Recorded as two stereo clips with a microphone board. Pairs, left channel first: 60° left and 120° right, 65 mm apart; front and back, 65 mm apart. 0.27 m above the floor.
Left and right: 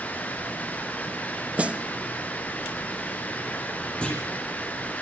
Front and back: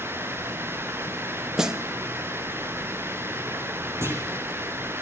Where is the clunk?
135° left, 10 m.